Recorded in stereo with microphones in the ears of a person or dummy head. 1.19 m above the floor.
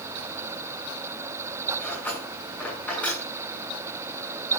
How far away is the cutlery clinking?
About 8.5 m.